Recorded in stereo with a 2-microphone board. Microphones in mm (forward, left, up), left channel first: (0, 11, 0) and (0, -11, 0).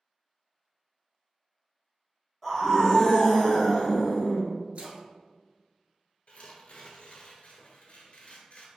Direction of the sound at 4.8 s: 70° right (ahead or behind).